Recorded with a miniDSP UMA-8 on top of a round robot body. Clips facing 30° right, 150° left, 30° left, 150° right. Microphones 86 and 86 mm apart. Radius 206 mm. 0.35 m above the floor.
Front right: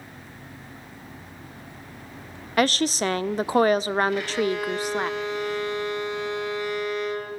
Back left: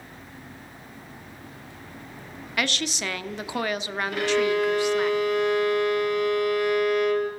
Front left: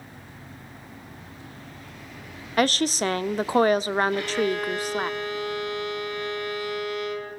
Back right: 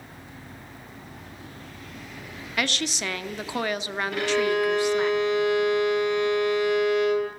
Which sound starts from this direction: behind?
A violin, at 4.1 s.